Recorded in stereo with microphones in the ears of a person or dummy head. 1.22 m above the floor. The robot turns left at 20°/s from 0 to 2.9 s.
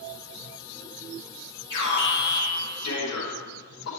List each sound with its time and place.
1.7 s an alarm: 60° left (ahead or behind), 4.5 m; by 3.9 s 85° left, 4.5 m